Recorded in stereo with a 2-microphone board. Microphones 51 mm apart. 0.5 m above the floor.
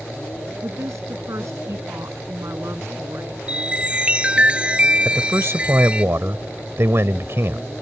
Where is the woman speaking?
75° right (ahead or behind); by 3.4 s 65° right (ahead or behind).